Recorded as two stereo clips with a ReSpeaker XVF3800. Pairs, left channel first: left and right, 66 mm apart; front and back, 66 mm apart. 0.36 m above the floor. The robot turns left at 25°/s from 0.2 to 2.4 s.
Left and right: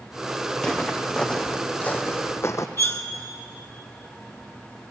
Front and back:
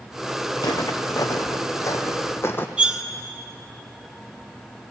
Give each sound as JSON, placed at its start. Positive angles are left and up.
{"t": 0.6, "sound": "footsteps", "azimuth_deg": 10, "distance_m": 1.4}
{"t": 2.8, "sound": "cutlery clinking", "azimuth_deg": 110, "distance_m": 0.8}